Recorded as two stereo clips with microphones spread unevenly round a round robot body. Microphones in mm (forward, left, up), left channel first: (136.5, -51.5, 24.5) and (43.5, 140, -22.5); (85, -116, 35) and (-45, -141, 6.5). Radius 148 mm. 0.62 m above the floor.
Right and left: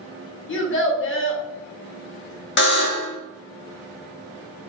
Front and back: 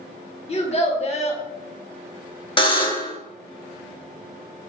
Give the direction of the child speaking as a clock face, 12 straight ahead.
1 o'clock.